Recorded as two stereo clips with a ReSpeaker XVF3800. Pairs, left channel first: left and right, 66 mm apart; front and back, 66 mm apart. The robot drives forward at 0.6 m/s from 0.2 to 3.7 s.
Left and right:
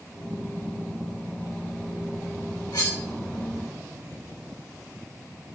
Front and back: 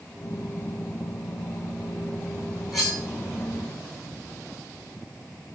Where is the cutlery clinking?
90° left, 6.5 m; by 3.0 s 95° left, 6.5 m.